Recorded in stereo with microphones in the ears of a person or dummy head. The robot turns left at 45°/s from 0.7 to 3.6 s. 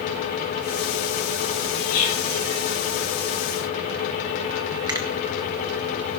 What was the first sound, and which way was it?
Whispering, 50° left (ahead or behind).